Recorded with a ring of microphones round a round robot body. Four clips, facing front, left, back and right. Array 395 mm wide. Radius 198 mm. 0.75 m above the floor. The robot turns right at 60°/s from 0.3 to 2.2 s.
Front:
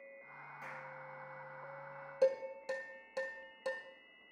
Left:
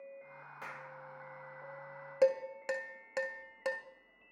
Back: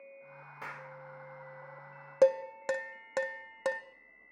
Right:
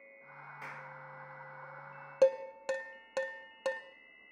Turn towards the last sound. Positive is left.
turn(degrees=-165)